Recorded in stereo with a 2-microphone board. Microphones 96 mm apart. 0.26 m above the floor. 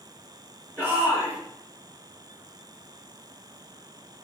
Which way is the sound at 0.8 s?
20° right (ahead or behind).